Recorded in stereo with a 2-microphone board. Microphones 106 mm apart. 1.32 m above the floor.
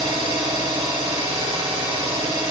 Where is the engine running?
80° right, 2.0 m.